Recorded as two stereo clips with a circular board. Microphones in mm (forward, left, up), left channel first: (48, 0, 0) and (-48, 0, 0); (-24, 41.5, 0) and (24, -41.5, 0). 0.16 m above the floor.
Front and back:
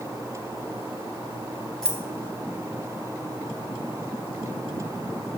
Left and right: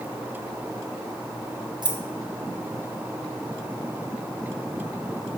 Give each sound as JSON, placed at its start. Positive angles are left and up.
{"t": 1.8, "sound": "keys jangling", "azimuth_deg": -85, "distance_m": 1.6}